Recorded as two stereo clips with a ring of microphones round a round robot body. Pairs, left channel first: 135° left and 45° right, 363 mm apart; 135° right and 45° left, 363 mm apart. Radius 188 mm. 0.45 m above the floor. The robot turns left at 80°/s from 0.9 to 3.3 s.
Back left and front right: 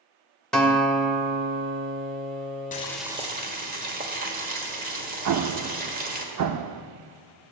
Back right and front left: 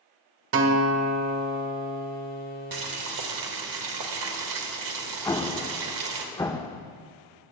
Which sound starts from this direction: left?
Boiling, at 2.7 s.